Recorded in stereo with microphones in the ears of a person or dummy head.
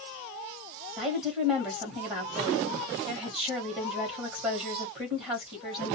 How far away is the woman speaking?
About 1.0 m.